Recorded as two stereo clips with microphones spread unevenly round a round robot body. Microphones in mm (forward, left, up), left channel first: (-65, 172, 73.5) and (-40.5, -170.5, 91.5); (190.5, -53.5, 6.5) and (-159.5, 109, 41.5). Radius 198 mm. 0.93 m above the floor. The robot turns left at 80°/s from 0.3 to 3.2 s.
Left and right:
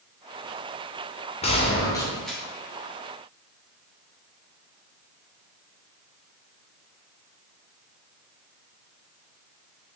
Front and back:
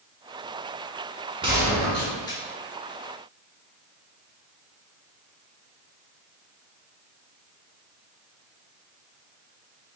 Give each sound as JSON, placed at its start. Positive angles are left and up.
{"t": 1.4, "sound": "a gunshot", "azimuth_deg": 85, "distance_m": 0.8}